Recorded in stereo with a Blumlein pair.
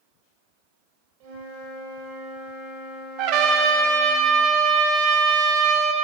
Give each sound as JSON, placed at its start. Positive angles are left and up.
{"t": 1.2, "sound": "a flute", "azimuth_deg": -50, "distance_m": 1.9}
{"t": 3.2, "sound": "a trumpet", "azimuth_deg": -40, "distance_m": 0.5}